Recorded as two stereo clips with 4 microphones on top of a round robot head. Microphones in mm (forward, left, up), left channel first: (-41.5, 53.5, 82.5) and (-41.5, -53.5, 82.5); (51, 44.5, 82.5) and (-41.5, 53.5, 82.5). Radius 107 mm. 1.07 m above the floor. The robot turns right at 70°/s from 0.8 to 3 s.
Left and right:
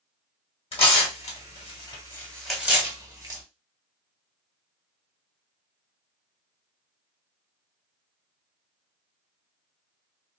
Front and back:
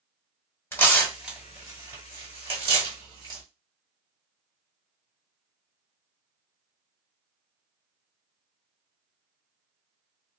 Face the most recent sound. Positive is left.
turn(degrees=-145)